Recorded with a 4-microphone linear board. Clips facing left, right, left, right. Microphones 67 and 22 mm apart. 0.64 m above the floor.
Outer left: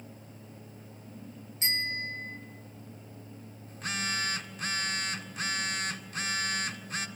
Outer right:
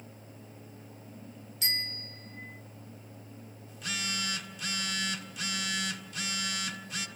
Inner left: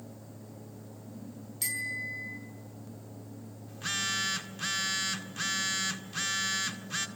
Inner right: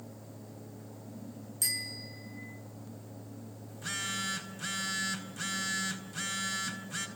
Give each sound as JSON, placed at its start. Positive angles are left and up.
{"t": 1.6, "sound": "a bicycle bell", "side_deg": 35, "distance_m": 4.0}
{"t": 3.7, "sound": "a phone buzzing", "side_deg": 40, "distance_m": 1.8}